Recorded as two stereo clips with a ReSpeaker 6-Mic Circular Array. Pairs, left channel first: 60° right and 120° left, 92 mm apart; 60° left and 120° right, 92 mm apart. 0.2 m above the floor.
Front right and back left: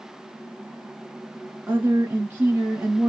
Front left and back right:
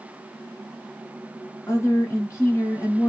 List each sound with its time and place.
1.7 s a woman speaking: 75° left, 1.6 m